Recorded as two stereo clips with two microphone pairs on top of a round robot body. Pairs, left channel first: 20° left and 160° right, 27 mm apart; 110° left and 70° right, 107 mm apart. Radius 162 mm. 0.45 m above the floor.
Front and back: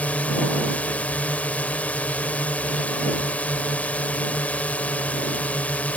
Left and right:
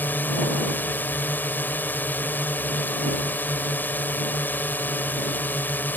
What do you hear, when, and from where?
0.0 s a drone: 40° left